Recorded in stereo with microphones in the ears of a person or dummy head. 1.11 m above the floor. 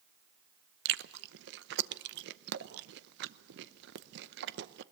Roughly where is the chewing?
Right.